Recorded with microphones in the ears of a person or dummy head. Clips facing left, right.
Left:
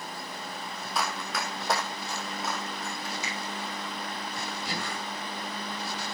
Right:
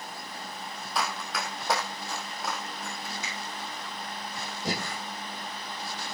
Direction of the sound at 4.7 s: 25° right (ahead or behind).